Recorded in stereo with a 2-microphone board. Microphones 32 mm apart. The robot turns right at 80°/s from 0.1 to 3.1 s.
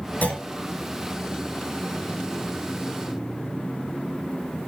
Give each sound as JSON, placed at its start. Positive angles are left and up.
{"t": 0.2, "sound": "a clunk", "side_deg": 65, "distance_m": 4.0}